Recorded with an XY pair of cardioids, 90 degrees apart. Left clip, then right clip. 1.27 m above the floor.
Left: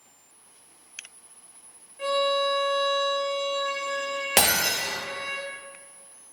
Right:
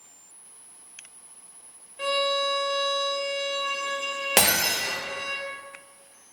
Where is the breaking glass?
5° right, 1.2 m.